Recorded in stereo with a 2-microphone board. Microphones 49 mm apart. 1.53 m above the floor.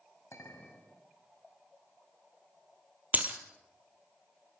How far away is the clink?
About 5.5 m.